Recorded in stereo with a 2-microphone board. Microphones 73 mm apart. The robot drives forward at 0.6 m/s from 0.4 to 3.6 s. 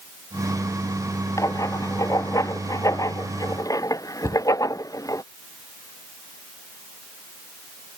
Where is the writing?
50° left (ahead or behind); by 5.2 s 55° left (ahead or behind).